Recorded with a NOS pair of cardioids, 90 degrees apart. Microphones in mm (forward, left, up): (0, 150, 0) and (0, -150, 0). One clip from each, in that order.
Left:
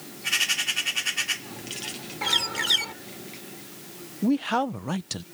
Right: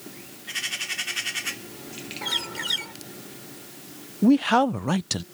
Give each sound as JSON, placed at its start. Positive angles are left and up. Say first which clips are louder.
{"t": 2.2, "sound": "a bird", "louder": "left 4 dB", "azimuth_deg": 30}
{"t": 4.2, "sound": "a man speaking", "louder": "right 5 dB", "azimuth_deg": -25}